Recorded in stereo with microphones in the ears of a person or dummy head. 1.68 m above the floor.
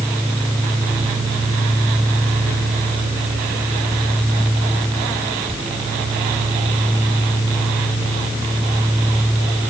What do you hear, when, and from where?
Only background noise.